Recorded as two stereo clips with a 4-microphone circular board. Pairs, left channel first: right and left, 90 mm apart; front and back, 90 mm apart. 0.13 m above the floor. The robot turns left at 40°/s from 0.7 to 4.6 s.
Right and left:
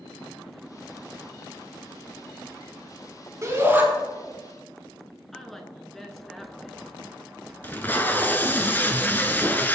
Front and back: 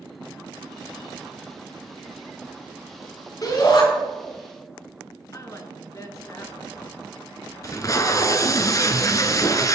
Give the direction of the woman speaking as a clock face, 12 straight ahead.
12 o'clock.